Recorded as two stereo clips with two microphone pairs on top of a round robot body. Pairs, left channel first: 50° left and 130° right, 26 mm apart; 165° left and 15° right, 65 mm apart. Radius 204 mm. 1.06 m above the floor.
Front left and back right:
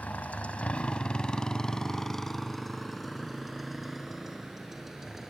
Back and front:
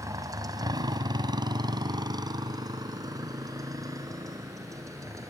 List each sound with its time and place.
0.0 s a motorcycle: 25° left; by 5.3 s 50° right